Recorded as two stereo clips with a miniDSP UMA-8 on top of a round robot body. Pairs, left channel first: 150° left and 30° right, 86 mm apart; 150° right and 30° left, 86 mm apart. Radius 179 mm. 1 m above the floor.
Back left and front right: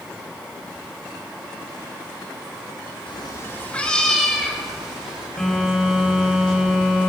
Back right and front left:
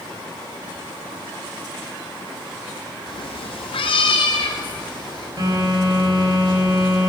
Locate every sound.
3.1 s a cat meowing: 175° left, 0.5 m; by 5.3 s 110° right, 2 m
5.4 s a phone buzzing: 70° left, 4.5 m